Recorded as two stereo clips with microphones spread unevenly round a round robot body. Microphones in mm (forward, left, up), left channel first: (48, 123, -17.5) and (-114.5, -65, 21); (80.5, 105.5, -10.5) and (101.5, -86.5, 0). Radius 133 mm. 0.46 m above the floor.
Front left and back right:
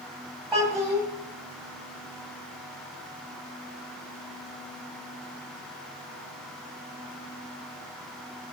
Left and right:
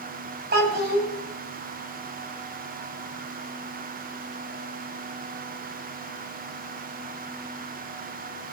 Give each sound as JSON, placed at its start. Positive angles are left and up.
{"t": 0.5, "sound": "a child speaking", "azimuth_deg": -50, "distance_m": 2.5}